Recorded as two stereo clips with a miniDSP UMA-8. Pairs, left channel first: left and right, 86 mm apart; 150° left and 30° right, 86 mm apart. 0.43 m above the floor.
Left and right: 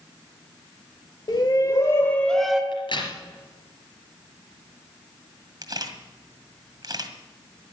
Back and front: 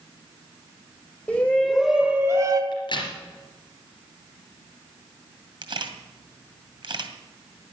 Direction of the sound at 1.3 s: 80° left.